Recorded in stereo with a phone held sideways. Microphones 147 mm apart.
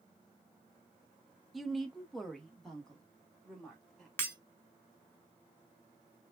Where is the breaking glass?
15° left (ahead or behind), 1.7 m.